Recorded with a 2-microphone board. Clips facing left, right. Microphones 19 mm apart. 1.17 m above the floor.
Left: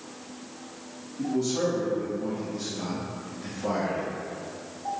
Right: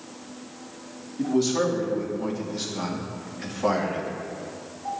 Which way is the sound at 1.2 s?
60° right (ahead or behind).